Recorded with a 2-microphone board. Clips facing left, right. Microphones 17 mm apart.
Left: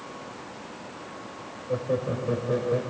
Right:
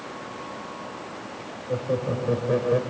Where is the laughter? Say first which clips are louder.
Right 1 dB; centre (ahead or behind), 1.7 m; by 2.8 s 30° right (ahead or behind), 1.5 m.